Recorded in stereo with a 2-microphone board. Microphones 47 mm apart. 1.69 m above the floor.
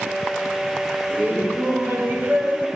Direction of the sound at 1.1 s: 40° right (ahead or behind).